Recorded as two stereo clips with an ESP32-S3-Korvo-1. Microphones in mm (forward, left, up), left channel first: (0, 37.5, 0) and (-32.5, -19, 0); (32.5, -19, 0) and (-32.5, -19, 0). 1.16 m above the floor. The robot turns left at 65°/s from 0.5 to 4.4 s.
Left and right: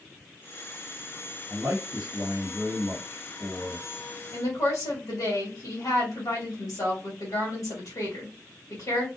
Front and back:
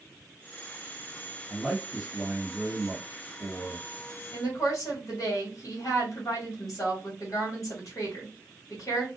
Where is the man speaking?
75° right, 1.9 m; by 3.9 s 130° left, 1.9 m.